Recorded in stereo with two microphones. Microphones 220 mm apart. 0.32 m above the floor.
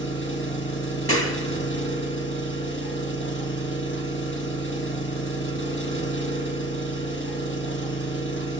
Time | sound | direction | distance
0.0 | an engine running | 65° left (ahead or behind) | 4 m
1.1 | a clap | 80° left | 3.5 m